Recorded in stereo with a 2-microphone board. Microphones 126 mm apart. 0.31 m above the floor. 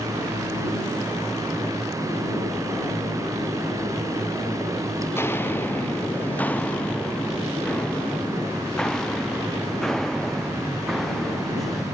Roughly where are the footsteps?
Left.